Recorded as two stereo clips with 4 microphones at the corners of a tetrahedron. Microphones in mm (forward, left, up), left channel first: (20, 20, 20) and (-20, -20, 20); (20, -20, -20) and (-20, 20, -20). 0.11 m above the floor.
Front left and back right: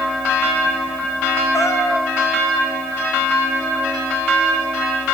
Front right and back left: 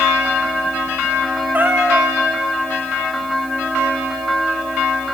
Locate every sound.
1.5 s a cat meowing: 80° left, 3.5 m